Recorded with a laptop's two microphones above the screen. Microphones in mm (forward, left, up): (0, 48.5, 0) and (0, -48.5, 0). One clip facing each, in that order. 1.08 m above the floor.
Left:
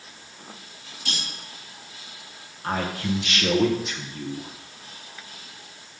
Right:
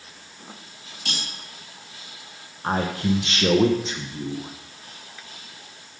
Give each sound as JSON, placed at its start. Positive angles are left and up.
{"t": 1.1, "sound": "cutlery clinking", "side_deg": -80, "distance_m": 3.5}
{"t": 2.6, "sound": "a man speaking", "side_deg": -30, "distance_m": 1.0}